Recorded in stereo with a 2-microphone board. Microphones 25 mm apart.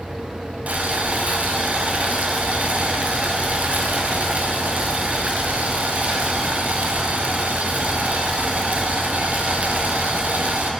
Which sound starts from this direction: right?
Boiling, at 0.7 s.